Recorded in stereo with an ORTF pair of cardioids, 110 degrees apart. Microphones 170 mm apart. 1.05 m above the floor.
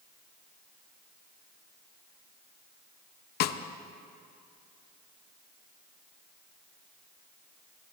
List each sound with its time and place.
3.4 s a snare drum: 70° left, 0.6 m